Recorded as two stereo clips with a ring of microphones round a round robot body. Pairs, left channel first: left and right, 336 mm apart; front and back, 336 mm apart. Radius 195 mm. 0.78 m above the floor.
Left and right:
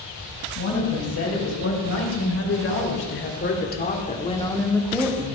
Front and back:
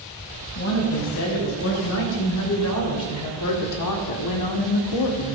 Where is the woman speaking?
45° left, 4.5 m; by 5.3 s 20° right, 1.2 m.